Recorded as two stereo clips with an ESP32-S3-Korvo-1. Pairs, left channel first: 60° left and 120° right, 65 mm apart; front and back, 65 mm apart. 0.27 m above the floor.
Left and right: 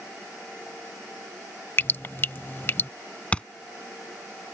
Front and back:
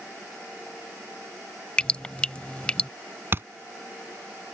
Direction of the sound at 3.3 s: 135° left.